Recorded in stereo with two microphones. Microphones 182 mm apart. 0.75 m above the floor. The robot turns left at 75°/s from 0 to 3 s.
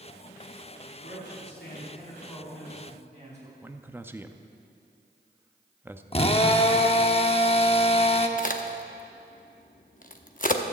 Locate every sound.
0.9 s a man speaking: 120° left, 5 m; by 3.5 s 40° right, 5 m
3.6 s a man speaking: 10° right (ahead or behind), 0.6 m
6.1 s a drill: 35° left (ahead or behind), 0.8 m
8.4 s a crack: 50° left (ahead or behind), 0.8 m